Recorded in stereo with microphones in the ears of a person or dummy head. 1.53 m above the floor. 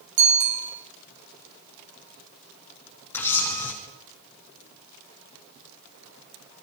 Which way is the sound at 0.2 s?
85° right.